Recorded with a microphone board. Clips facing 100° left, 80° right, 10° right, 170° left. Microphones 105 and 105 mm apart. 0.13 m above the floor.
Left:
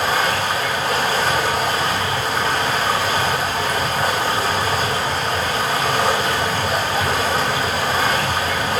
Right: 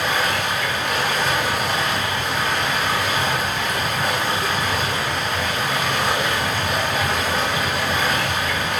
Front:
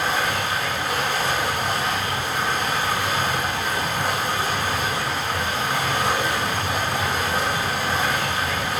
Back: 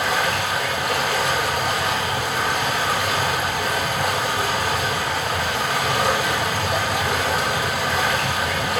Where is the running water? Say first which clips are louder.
Left 3 dB, back 1 dB; 155° left, 3.5 m.